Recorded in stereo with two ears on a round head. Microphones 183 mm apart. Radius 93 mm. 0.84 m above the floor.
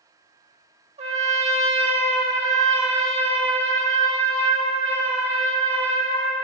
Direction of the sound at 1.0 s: 35° right (ahead or behind).